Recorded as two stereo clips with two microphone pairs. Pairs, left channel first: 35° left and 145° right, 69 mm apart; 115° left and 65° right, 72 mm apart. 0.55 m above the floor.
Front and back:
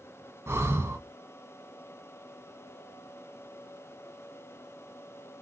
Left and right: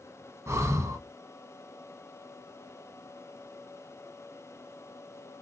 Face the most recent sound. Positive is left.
turn(degrees=-105)